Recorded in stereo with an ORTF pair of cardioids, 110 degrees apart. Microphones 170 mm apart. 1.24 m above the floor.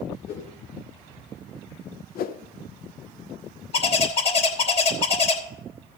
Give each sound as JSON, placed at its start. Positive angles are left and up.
{"t": 0.3, "sound": "a whoosh", "azimuth_deg": 65, "distance_m": 2.0}
{"t": 2.1, "sound": "a whoosh", "azimuth_deg": 60, "distance_m": 0.7}
{"t": 3.7, "sound": "a bird", "azimuth_deg": 35, "distance_m": 3.0}